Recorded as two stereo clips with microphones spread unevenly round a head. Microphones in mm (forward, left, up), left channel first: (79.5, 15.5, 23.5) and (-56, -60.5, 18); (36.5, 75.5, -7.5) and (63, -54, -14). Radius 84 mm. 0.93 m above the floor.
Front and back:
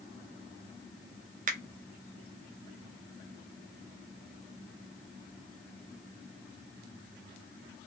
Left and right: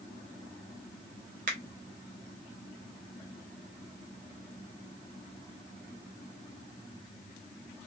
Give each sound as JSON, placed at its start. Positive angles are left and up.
{"t": 1.5, "sound": "a finger snap", "azimuth_deg": -120, "distance_m": 0.7}